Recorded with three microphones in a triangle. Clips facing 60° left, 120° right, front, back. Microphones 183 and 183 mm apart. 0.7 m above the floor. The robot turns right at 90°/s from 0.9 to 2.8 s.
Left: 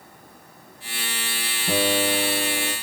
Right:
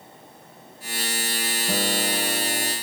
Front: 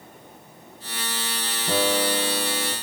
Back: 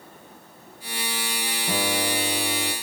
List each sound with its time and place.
1.7 s a guitar: 90° left, 6.5 m; by 2.7 s 175° right, 6.5 m